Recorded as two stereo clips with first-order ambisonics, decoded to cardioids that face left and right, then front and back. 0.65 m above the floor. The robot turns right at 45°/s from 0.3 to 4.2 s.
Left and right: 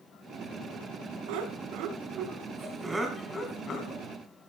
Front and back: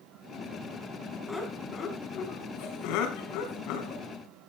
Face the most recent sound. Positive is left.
turn(degrees=45)